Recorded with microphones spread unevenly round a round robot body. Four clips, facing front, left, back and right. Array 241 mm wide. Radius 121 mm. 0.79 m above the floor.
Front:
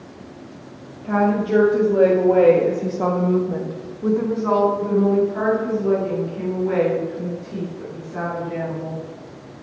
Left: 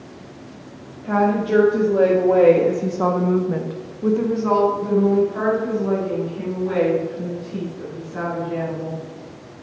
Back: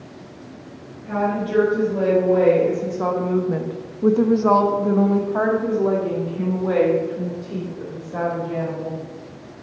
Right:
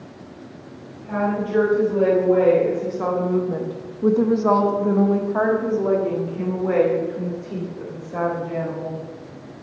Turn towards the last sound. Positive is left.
turn(degrees=-130)